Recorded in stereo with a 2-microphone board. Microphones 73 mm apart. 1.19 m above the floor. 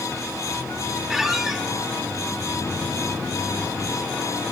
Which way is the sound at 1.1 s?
5° right (ahead or behind).